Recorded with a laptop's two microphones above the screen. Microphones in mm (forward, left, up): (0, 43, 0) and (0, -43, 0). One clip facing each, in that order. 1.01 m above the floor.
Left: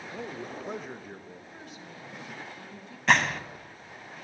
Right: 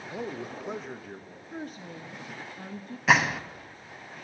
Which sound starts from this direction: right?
A woman speaking, at 1.5 s.